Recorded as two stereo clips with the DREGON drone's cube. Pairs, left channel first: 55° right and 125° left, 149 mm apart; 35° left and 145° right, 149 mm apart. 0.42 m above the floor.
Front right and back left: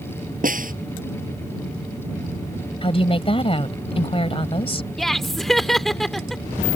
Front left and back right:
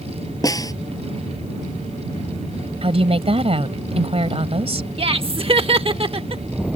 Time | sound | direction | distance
0.4 | a snare drum | 100° left | ?
2.8 | a woman speaking | 100° right | ?
5.0 | laughter | 145° right | ?